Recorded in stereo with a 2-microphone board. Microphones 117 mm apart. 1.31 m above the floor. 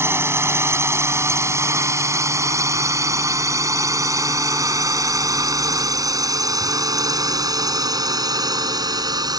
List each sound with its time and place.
0.0 s a drone: 20° right (ahead or behind); by 9.4 s 35° right (ahead or behind)